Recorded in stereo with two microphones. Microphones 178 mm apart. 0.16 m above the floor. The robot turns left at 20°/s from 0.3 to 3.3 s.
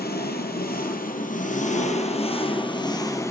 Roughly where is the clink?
I don't hear a clink.